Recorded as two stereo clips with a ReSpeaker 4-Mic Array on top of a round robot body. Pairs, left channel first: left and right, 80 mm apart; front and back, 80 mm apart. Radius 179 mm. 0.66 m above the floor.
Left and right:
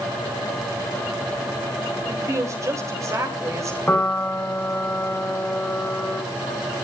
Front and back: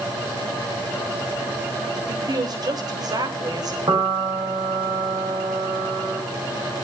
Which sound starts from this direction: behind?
A piano, at 3.9 s.